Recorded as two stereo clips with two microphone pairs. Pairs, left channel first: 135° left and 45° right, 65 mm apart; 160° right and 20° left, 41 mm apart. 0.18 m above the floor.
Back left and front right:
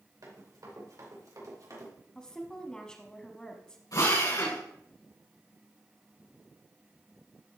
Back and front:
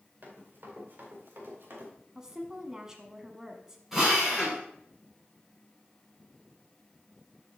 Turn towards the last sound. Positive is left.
turn(degrees=110)